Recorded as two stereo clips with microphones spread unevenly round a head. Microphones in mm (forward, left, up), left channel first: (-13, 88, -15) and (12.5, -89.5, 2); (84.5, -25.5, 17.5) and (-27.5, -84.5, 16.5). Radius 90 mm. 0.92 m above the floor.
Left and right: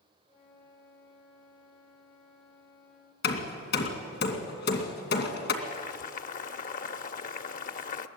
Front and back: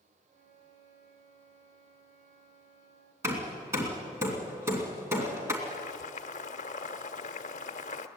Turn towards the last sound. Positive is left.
turn(degrees=55)